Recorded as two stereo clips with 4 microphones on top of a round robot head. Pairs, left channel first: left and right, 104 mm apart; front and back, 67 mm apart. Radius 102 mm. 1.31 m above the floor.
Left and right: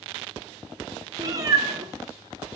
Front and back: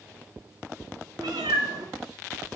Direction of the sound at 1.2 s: 125° right.